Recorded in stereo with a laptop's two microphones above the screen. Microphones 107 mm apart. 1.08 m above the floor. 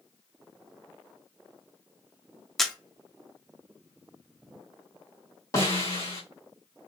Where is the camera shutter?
Centre (ahead or behind), 0.6 m.